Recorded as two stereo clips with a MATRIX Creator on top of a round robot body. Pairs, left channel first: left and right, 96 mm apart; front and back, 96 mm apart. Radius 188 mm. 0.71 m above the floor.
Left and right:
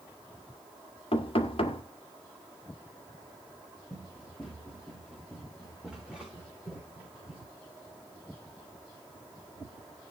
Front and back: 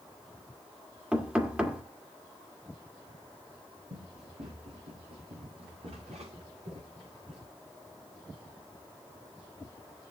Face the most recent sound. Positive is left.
turn(degrees=-165)